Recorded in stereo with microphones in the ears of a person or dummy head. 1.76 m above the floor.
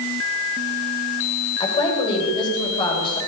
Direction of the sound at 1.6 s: 30° left (ahead or behind).